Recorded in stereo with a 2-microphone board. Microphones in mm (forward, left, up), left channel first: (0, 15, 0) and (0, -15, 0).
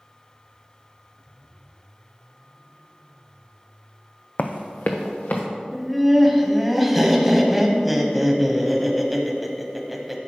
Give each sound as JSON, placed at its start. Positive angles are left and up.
{"t": 4.4, "sound": "running footsteps", "side_deg": 65, "distance_m": 0.6}
{"t": 5.7, "sound": "laughter", "side_deg": 0, "distance_m": 1.1}